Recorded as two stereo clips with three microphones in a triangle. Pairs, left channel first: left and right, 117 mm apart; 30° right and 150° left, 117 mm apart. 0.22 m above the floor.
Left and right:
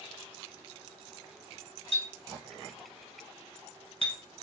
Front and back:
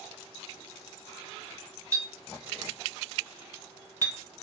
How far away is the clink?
About 1.4 m.